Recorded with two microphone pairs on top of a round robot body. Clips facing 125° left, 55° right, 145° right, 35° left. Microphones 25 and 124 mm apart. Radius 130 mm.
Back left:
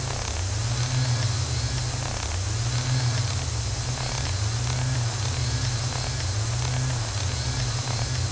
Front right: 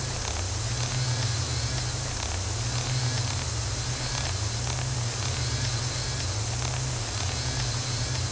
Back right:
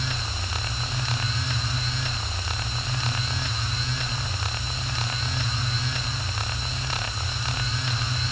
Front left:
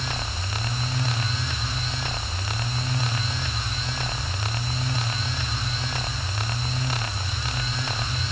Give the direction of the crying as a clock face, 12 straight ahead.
No crying in this recording.